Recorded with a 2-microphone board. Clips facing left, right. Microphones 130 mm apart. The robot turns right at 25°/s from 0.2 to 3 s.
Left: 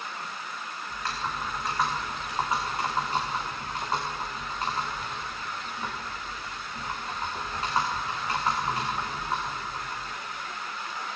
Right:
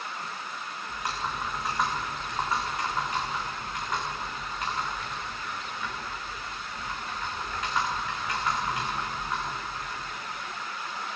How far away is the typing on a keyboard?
About 4 m.